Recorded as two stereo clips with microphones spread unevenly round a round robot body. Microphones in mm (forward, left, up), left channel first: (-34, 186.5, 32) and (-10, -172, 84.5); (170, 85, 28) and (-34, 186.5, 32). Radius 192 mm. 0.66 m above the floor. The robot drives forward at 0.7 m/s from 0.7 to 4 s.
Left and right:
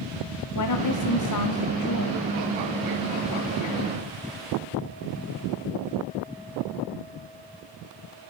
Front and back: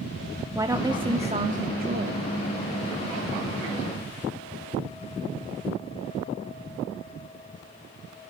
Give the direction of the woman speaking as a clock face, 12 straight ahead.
9 o'clock.